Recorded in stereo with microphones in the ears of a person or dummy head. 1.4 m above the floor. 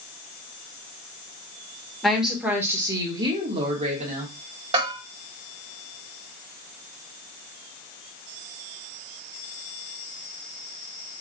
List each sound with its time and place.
2.0 s a woman speaking: centre (ahead or behind), 1.3 m; by 4.3 s 50° right (ahead or behind), 1.7 m
4.7 s a bell: 30° right (ahead or behind), 1.9 m